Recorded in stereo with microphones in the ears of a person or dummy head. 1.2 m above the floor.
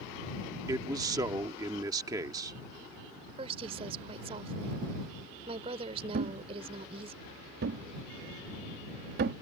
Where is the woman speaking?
30° right (ahead or behind).